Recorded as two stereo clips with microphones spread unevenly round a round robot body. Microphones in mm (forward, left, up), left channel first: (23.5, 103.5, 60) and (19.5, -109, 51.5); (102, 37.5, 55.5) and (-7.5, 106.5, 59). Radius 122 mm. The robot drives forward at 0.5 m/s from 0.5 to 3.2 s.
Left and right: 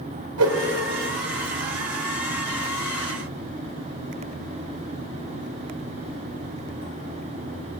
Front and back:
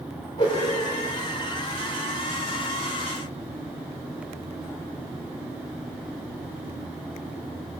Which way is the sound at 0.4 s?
100° right.